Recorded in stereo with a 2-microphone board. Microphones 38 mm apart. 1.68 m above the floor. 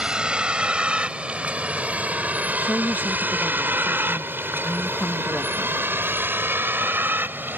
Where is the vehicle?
25° right (ahead or behind); by 7.6 s 60° right (ahead or behind).